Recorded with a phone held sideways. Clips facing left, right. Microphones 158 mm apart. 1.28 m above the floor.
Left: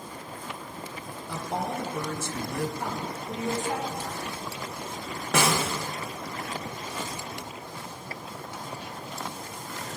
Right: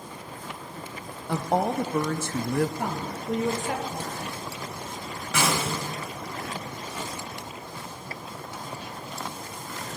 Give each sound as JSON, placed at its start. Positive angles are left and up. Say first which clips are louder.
{"t": 1.3, "sound": "a woman speaking", "louder": "right 7 dB", "side_deg": -65, "distance_m": 0.5}
{"t": 2.8, "sound": "a woman speaking", "louder": "right 2 dB", "side_deg": -75, "distance_m": 1.2}
{"t": 5.3, "sound": "a snare drum", "louder": "left 1 dB", "side_deg": 65, "distance_m": 1.5}